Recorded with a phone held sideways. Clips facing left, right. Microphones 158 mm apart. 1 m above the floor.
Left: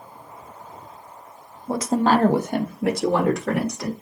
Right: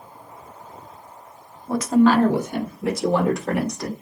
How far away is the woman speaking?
About 0.6 m.